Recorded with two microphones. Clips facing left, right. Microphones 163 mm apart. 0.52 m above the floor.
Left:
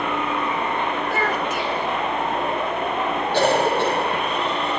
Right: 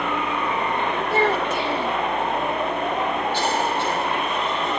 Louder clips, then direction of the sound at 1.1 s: Right 3 dB; 30° right (ahead or behind).